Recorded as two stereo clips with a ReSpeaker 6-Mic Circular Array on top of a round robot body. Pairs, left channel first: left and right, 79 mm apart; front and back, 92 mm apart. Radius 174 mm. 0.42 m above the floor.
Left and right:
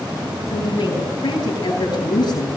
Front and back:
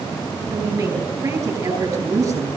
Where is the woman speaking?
125° left, 10 m.